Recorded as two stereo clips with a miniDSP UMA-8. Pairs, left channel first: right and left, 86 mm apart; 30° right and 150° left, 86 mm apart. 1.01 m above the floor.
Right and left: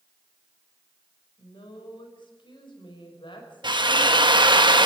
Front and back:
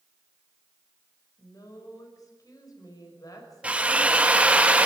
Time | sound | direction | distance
1.4 | a woman speaking | 70° right | 5.5 m
3.6 | a drill | 75° left | 1.4 m